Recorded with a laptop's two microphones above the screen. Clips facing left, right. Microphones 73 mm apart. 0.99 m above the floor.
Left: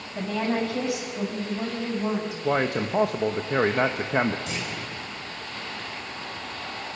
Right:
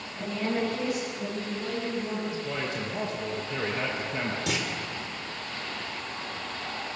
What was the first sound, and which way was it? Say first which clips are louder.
A woman speaking: left 3 dB; 85° left.